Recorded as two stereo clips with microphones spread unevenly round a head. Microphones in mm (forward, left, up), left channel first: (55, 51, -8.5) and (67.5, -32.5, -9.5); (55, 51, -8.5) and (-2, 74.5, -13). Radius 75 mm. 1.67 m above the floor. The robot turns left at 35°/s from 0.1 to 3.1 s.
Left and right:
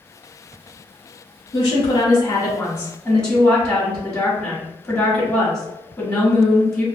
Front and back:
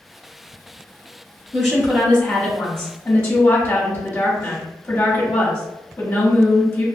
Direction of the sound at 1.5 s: 95° left.